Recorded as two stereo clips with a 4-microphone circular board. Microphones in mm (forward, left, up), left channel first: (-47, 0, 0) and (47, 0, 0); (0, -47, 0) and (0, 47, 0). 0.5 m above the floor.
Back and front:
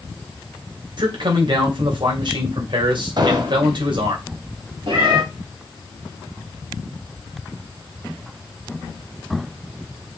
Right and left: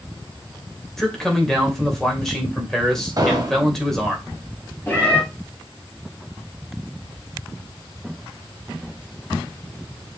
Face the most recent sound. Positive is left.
turn(degrees=-20)